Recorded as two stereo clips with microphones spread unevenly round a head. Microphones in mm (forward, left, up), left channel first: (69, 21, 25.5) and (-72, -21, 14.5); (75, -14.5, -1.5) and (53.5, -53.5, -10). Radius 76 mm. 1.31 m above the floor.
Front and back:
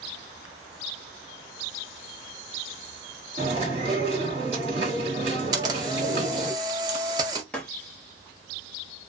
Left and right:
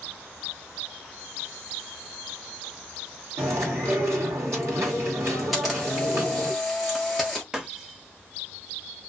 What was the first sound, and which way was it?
Chewing, 120° right.